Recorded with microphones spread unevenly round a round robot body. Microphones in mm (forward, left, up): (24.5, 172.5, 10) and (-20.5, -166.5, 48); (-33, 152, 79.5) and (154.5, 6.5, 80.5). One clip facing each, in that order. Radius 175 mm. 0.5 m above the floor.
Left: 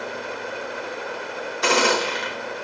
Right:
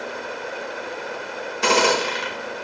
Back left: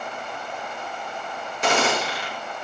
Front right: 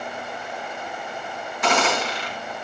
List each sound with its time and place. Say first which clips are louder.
1.6 s a gunshot: right 1 dB, even; 155° right, 1.4 m